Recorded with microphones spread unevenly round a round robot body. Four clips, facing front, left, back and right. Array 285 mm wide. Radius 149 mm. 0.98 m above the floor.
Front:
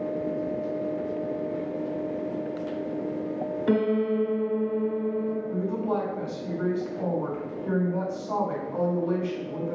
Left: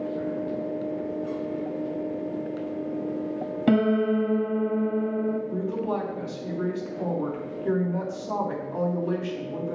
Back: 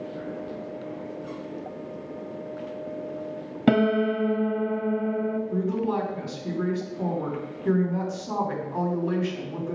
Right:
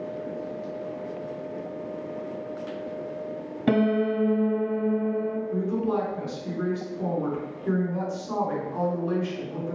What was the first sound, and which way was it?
A piano, 175° right.